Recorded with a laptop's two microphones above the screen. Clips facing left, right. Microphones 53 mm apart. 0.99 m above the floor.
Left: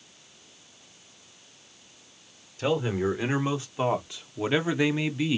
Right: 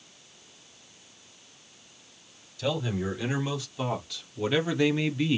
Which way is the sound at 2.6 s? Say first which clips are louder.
Left 4 dB; 35° left (ahead or behind).